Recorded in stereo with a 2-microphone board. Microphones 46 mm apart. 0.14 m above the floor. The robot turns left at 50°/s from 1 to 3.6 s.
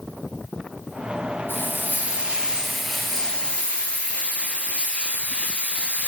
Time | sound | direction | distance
1.5 | frying | 110° right | 2.5 m